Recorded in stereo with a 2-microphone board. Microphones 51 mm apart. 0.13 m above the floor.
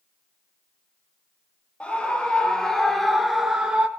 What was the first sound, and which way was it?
A scream, 20° left (ahead or behind).